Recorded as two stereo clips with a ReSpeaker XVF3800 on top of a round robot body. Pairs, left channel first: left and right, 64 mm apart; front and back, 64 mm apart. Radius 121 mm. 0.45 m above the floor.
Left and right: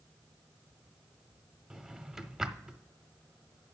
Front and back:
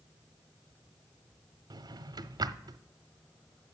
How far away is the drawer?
About 0.5 m.